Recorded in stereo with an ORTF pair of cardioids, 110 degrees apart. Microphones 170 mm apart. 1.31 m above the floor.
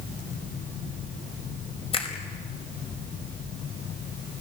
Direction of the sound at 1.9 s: 35° left.